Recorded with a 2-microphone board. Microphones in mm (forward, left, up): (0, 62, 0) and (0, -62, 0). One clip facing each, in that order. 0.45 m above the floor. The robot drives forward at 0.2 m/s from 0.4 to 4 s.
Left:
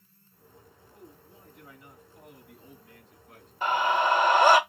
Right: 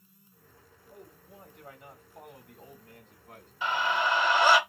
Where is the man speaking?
65° right (ahead or behind), 3 m.